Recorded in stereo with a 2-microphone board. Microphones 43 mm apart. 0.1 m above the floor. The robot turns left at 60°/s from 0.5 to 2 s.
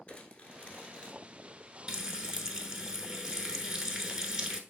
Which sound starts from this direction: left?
Crumpling, at 0.1 s.